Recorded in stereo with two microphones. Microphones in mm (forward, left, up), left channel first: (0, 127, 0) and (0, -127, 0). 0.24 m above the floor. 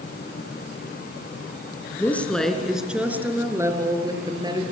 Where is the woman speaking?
10° left (ahead or behind), 3 m; by 4.6 s 15° right (ahead or behind), 5.5 m.